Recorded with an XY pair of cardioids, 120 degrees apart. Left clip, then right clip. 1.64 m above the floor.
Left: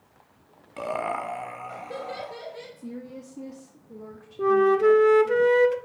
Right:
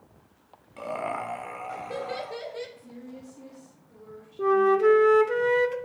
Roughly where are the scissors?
No scissors in this recording.